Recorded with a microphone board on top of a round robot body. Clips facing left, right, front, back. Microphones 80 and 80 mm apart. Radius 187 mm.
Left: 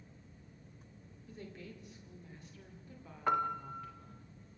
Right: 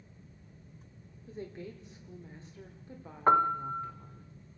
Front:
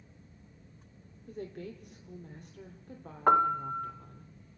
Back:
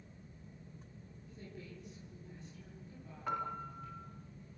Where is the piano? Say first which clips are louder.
Right 8 dB, front 15 dB; 35° right, 0.7 m.